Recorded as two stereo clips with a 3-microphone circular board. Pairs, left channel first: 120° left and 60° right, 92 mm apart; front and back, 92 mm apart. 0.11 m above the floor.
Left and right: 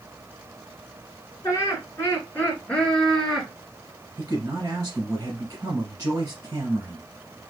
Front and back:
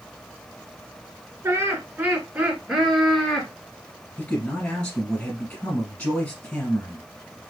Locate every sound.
1.4 s laughter: 140° left, 1.7 m; by 3.5 s 30° left, 1.5 m
4.2 s a man speaking: 30° right, 1.5 m